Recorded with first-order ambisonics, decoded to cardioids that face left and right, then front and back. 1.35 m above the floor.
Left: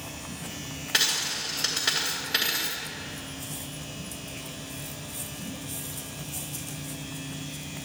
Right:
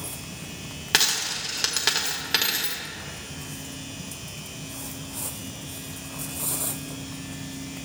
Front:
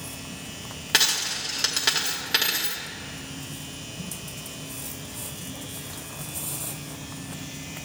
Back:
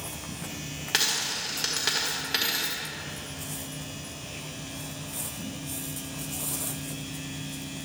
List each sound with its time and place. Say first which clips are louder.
0.9 s a dropped coin: right 2 dB, front 4 dB; 65° right, 1.1 m